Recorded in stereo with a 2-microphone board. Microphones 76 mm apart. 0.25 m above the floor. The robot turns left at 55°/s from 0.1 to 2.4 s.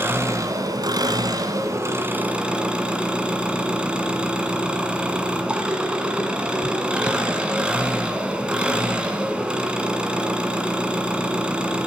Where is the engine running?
40° right, 2.0 m; by 11.9 s 165° right, 2.0 m.